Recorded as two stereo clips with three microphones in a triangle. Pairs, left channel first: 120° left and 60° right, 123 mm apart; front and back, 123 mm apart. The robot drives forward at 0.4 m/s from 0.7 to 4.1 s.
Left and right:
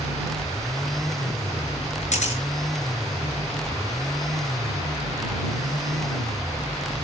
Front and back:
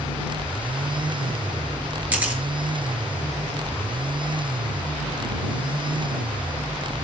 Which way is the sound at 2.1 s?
100° left.